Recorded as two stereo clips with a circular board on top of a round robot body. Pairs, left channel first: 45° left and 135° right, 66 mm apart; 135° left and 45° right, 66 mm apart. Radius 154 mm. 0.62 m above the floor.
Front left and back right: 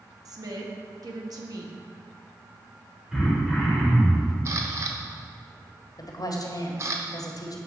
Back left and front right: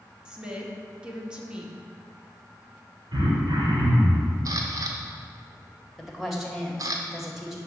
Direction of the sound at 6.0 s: 40° left.